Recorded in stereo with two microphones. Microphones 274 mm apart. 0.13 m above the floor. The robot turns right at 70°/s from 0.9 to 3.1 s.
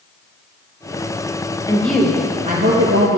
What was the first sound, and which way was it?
A woman speaking, 165° left.